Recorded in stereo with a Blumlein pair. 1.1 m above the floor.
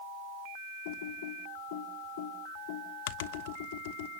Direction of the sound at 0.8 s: 50° left.